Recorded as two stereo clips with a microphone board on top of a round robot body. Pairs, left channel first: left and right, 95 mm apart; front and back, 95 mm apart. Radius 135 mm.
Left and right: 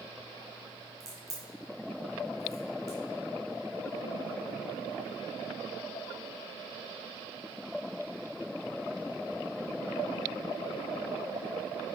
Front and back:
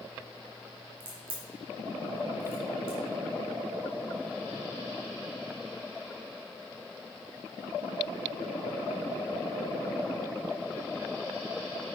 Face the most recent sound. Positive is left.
turn(degrees=-150)